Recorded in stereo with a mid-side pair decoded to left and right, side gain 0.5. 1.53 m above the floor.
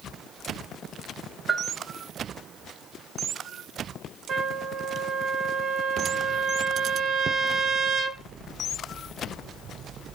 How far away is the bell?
About 1.0 m.